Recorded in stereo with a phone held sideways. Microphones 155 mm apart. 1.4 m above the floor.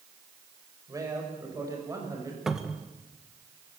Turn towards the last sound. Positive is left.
turn(degrees=-5)  # may be behind; listen again after turning